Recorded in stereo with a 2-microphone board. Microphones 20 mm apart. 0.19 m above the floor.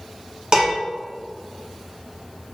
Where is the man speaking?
No man speaking in this recording.